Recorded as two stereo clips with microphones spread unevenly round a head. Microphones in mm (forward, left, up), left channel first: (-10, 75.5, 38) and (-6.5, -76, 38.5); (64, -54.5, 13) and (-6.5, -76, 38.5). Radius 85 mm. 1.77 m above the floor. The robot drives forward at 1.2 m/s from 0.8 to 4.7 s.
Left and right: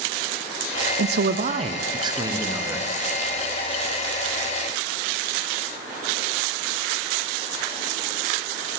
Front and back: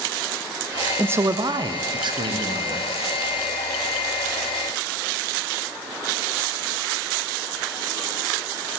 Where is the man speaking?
95° right, 0.7 m; by 2.9 s 165° right, 2.5 m.